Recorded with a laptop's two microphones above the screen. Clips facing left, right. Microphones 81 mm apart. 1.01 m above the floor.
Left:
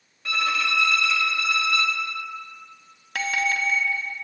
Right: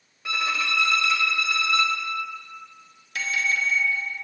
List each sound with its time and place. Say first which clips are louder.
0.2 s a violin: left 2 dB; 15° right (ahead or behind), 1.0 m
3.1 s a bell: left 2 dB; 65° left (ahead or behind), 0.7 m